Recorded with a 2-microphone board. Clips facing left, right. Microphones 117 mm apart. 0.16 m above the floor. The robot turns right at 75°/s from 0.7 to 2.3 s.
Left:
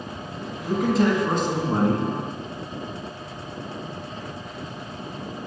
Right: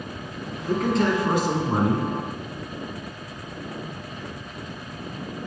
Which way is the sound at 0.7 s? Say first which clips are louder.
Left 1 dB; 10° left (ahead or behind).